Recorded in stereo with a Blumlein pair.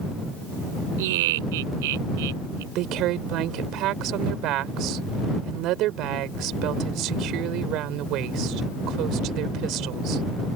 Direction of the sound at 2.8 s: 35° right.